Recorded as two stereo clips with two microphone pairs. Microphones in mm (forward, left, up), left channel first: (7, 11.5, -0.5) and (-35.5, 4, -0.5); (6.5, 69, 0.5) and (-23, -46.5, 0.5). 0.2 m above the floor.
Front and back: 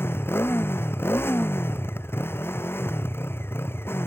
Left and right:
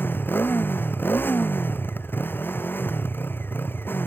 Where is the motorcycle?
5° left.